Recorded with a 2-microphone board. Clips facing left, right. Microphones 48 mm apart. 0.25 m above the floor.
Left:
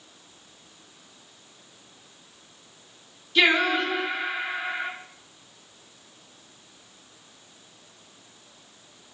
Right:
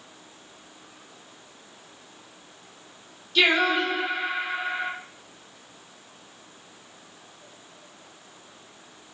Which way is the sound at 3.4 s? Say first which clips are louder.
Even; 20° left (ahead or behind).